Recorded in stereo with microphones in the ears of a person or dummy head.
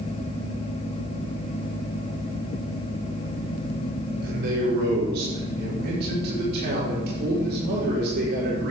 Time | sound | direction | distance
4.2 | a man speaking | 60° right (ahead or behind) | 5.5 m